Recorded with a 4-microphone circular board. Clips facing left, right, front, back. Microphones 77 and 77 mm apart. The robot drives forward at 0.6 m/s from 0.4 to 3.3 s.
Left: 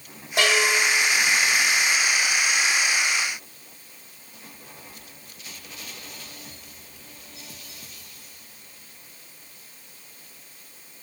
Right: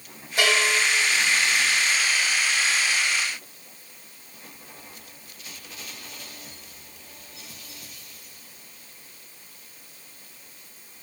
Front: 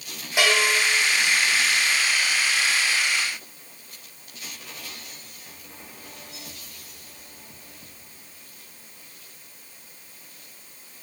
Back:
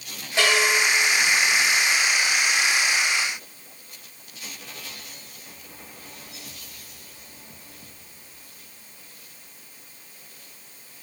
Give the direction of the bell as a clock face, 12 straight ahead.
10 o'clock.